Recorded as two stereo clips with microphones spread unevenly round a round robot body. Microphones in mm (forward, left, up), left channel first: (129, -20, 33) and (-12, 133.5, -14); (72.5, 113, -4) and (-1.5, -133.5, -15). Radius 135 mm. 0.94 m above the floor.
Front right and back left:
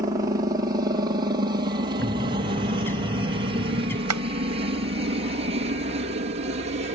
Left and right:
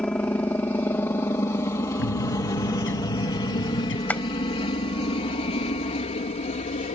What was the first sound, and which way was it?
A helicopter, 155° left.